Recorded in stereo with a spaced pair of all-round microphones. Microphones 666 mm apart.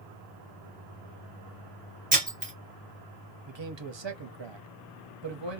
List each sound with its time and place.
2.1 s breaking glass: 10° right (ahead or behind), 1.7 m
3.5 s a man speaking: 40° right (ahead or behind), 0.7 m